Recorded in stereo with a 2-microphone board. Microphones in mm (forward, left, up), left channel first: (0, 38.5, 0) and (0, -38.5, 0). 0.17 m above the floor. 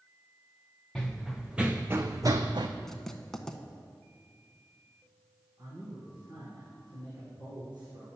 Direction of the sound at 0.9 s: 5° left (ahead or behind).